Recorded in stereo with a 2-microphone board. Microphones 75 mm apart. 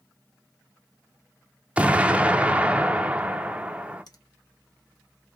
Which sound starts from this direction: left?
A finger snap, at 4.1 s.